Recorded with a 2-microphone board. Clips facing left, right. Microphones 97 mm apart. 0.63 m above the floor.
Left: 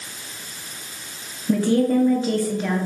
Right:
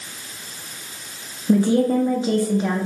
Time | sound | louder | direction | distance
1.5 | a woman speaking | right 1 dB | 20° right (ahead or behind) | 1.0 m